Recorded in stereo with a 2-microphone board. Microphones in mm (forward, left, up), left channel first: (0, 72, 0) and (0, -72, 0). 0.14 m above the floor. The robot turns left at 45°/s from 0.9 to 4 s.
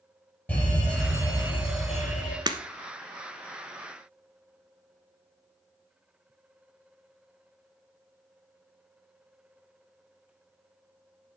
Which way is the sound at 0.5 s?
170° left.